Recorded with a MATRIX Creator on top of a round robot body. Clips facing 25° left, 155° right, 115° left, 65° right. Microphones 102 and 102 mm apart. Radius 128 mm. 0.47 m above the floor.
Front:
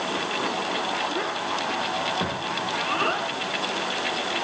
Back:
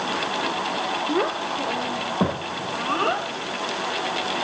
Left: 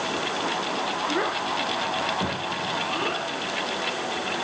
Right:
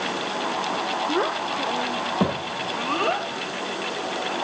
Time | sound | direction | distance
1.1 | a child speaking | 130° right | 1.4 m